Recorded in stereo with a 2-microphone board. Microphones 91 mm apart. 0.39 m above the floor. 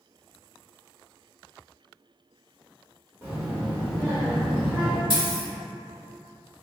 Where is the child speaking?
20° right (ahead or behind), 0.9 m; by 5.0 s 15° right (ahead or behind), 1.4 m.